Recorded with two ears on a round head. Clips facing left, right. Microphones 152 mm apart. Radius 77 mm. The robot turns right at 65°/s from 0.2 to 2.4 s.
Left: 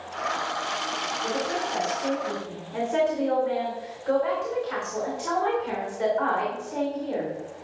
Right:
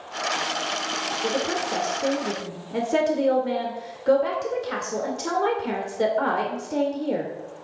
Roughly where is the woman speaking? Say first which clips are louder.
Right 3 dB; behind right.